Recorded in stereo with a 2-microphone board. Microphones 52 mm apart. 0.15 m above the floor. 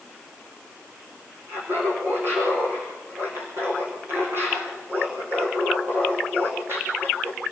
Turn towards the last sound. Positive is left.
turn(degrees=-45)  # may be behind; listen again after turning